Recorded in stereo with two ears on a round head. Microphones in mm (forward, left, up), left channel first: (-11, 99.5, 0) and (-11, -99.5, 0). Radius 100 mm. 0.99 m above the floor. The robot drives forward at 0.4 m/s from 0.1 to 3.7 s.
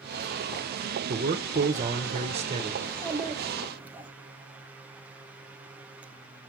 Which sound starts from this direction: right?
A man speaking, at 1.1 s.